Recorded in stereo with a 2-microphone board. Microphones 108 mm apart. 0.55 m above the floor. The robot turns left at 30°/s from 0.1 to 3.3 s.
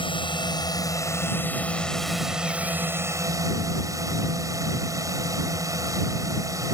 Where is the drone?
60° left; by 6.8 s 35° right.